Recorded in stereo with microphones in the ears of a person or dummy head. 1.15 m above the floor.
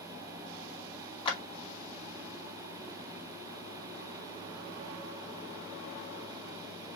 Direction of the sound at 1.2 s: 30° left (ahead or behind).